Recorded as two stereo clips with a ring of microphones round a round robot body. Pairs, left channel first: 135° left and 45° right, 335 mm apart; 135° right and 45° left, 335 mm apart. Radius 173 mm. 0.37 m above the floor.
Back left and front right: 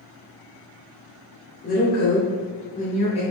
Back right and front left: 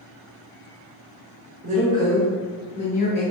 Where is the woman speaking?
95° left, 0.9 m; by 3.2 s 165° right, 0.9 m.